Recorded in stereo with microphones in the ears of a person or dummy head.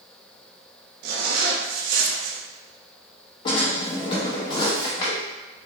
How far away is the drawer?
About 0.8 m.